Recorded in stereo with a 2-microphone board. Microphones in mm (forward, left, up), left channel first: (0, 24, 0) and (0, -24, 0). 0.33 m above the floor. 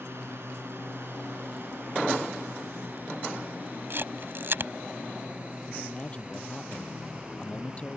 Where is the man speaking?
25° left (ahead or behind).